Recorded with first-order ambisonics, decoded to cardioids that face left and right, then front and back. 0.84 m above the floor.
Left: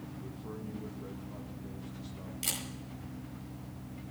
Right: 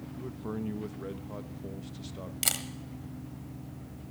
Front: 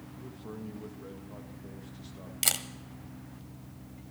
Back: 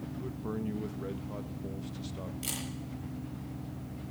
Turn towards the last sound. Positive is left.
turn(degrees=-35)